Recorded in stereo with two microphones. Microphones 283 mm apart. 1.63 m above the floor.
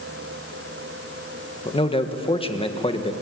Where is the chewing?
I don't hear chewing.